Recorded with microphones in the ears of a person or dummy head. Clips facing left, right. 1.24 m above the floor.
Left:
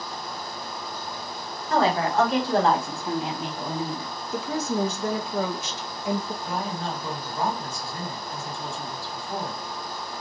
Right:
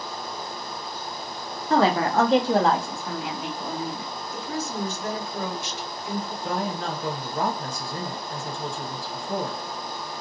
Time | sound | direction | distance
1.7 | a woman speaking | 50° right (ahead or behind) | 0.7 m
4.3 | a woman speaking | 55° left (ahead or behind) | 0.7 m
6.4 | a woman speaking | 35° right (ahead or behind) | 0.9 m